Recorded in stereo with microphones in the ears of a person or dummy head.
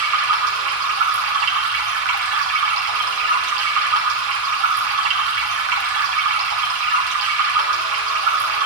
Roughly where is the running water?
Right.